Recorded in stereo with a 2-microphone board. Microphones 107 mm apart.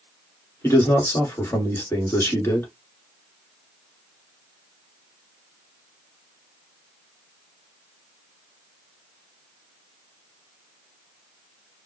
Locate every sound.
0.6 s a man speaking: 25° left (ahead or behind), 1.8 m